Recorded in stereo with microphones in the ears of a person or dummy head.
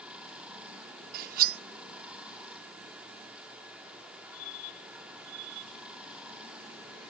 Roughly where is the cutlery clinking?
Right.